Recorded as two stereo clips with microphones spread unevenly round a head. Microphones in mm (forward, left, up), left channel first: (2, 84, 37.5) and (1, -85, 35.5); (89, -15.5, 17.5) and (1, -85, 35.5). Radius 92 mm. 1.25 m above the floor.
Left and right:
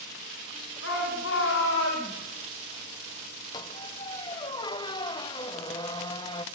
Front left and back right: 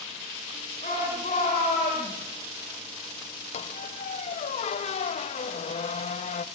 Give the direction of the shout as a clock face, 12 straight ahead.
9 o'clock.